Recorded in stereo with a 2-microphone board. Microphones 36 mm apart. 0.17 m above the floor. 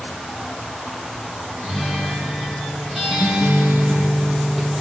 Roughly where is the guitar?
Centre.